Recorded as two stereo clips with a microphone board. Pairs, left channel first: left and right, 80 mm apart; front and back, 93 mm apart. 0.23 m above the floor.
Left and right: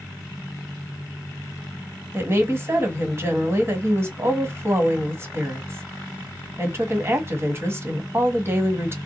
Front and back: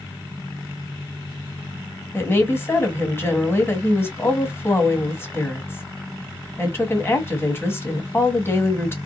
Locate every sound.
2.1 s a woman speaking: 50° right, 1.4 m